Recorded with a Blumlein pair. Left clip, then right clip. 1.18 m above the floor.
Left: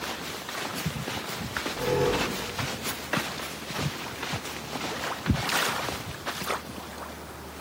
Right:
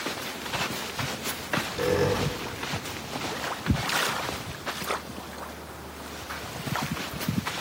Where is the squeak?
70° right, 1.9 m.